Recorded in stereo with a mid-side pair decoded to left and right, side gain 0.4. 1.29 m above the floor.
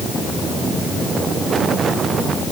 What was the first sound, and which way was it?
Only background noise.